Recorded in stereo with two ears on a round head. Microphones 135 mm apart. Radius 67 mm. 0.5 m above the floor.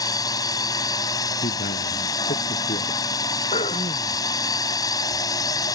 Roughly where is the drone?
Left.